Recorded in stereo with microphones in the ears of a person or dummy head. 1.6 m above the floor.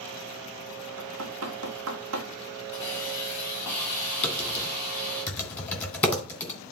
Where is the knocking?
85° right, 1.6 m.